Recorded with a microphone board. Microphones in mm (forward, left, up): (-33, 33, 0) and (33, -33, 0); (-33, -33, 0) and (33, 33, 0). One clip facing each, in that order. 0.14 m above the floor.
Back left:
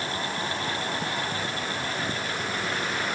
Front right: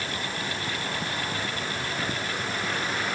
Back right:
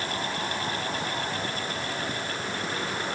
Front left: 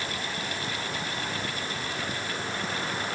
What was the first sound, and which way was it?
Only background noise.